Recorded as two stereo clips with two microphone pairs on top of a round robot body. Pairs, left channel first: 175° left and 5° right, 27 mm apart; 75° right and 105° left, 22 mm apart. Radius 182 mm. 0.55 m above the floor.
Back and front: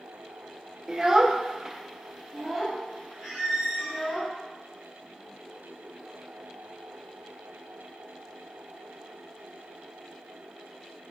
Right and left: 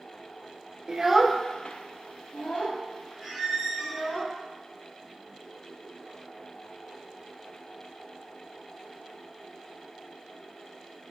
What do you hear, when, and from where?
0.9 s a child speaking: 55° left, 0.5 m; by 4.2 s 90° right, 2 m
3.2 s a squeak: 15° left, 1.0 m